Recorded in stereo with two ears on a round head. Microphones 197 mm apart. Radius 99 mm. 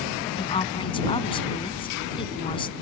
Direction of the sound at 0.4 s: 25° left (ahead or behind).